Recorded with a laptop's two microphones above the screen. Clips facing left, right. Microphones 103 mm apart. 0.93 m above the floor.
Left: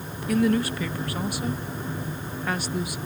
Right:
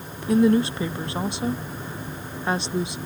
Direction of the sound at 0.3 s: 25° right (ahead or behind).